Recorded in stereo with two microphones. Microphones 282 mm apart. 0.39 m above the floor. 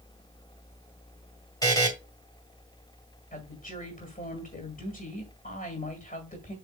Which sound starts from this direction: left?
A woman speaking, at 3.3 s.